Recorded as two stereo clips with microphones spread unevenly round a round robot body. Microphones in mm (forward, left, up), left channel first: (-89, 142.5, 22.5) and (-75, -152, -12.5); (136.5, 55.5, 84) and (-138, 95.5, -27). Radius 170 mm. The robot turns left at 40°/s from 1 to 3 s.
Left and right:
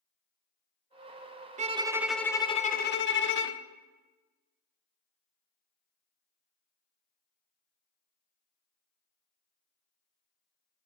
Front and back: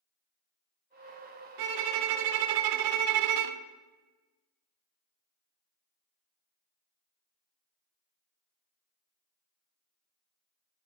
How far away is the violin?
About 0.5 m.